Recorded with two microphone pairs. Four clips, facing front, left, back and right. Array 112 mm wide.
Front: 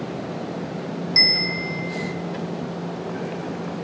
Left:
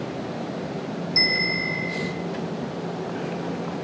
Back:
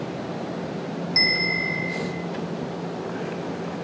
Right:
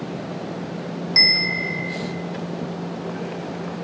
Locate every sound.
1.2 s a bell: 100° right, 3.5 m